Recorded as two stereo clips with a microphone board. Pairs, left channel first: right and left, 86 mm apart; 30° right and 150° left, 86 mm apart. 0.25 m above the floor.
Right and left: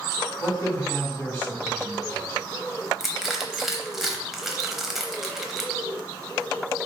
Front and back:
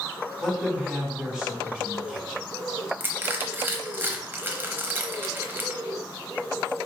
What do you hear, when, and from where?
0.4 s a man speaking: 135° right, 1.4 m
3.0 s crushing: 170° left, 0.9 m